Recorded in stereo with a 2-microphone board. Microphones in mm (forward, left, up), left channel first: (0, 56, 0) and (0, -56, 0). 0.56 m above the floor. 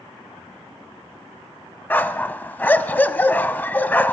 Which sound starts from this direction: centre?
A dog barking, at 1.9 s.